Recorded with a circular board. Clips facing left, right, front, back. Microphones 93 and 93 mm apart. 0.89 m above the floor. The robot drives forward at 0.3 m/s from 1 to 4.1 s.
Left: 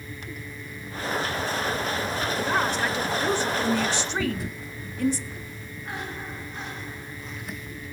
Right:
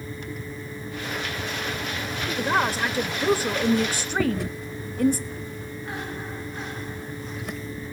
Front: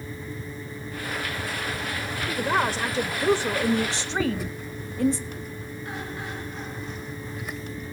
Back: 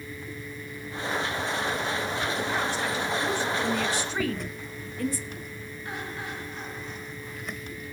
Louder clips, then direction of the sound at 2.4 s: Right 3 dB, front 4 dB; 40° right.